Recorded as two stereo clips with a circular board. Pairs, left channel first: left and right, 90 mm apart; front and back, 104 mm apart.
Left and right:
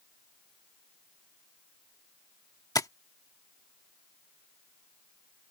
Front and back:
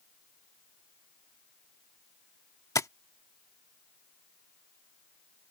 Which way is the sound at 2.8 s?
50° left.